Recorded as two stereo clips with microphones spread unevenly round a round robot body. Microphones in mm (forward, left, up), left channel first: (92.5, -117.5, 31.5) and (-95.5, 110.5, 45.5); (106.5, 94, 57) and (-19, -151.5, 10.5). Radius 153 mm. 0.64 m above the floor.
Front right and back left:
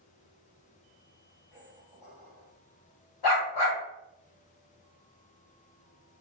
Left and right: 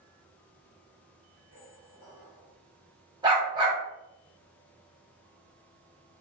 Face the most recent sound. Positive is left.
turn(degrees=-40)